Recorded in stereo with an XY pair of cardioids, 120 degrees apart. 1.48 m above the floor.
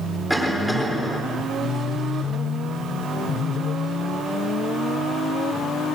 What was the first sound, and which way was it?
A cough, 5° right.